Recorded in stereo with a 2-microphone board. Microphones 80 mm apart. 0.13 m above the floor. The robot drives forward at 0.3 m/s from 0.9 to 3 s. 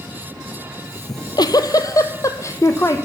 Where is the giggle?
65° left (ahead or behind), 0.6 m; by 3.0 s 35° left (ahead or behind), 0.9 m.